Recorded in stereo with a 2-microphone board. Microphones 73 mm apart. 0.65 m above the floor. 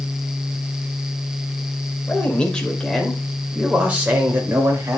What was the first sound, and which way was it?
A man speaking, 20° left (ahead or behind).